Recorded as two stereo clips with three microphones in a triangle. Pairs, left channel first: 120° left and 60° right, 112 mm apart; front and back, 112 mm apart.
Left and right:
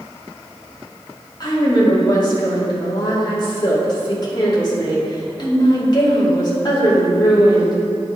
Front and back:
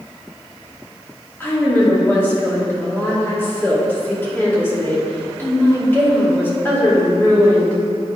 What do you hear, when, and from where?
1.4 s a woman speaking: 70° left, 2 m